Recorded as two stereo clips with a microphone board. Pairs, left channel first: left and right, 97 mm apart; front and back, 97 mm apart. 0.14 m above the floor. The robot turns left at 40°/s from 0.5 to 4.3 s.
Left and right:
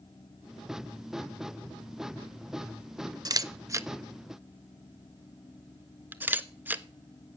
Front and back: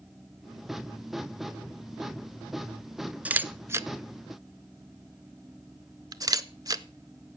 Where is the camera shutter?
110° right, 0.5 m; by 7.4 s 155° right, 0.5 m.